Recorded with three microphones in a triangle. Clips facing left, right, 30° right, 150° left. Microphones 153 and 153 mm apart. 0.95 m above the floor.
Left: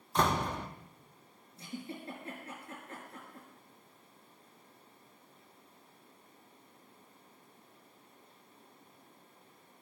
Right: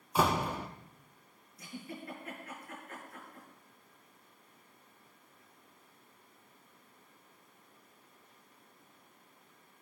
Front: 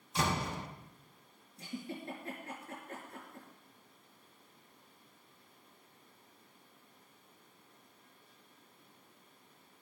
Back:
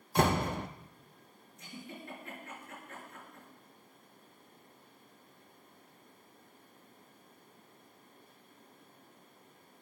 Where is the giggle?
25° left, 5 m.